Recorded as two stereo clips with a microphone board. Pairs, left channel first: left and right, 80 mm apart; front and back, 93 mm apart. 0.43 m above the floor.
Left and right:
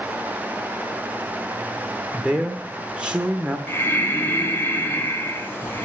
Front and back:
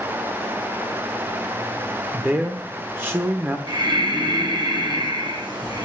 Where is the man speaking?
150° right, 0.9 m.